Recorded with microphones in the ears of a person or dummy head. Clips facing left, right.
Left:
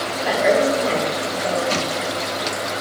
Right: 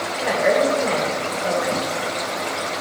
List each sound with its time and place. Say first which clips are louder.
0.2 s a woman speaking: left 1 dB; 60° left (ahead or behind), 4 m